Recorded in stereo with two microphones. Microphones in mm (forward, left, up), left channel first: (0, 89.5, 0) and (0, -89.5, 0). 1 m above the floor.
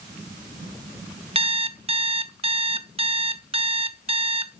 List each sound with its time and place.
1.4 s an alarm clock: 35° right (ahead or behind), 0.7 m